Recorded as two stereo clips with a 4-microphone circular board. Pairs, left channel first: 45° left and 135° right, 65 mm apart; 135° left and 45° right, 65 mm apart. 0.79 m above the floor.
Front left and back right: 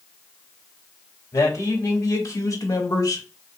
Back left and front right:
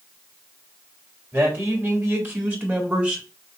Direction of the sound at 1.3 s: 5° left.